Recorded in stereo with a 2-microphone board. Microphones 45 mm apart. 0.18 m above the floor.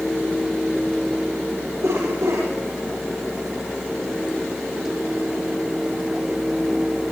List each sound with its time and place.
1.8 s a cough: 80° right, 9 m